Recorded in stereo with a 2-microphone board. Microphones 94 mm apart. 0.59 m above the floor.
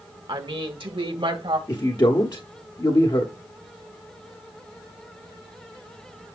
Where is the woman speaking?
65° right (ahead or behind), 1.3 m; by 1.6 s 75° right (ahead or behind), 2.5 m.